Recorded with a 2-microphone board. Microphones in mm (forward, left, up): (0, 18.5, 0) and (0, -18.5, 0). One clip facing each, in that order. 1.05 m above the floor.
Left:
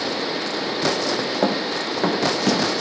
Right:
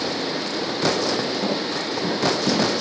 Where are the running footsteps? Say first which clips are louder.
Left 3 dB; 65° left (ahead or behind), 3.5 m.